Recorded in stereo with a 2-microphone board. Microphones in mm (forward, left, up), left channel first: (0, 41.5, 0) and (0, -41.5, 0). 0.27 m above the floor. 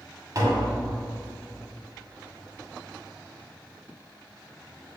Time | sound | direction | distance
0.3 | tapping | 40° right (ahead or behind) | 2.0 m